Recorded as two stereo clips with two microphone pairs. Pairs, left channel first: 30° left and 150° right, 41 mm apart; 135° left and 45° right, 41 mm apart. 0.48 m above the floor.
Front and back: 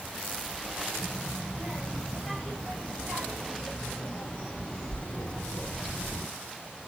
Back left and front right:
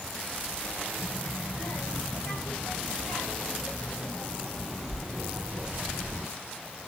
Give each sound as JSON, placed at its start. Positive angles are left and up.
{"t": 1.0, "sound": "a child speaking", "azimuth_deg": 110, "distance_m": 3.0}